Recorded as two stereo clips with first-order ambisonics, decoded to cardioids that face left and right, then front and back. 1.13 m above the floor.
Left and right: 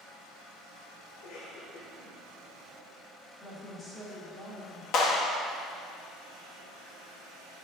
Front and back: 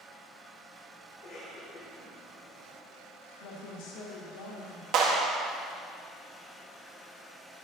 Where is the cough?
50° left, 4 m.